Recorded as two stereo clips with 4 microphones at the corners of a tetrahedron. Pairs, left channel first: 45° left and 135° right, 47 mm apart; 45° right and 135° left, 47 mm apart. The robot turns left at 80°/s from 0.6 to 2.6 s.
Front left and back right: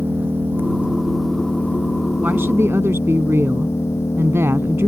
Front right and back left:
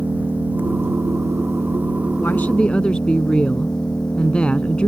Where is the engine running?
175° right; by 4.9 s 25° left.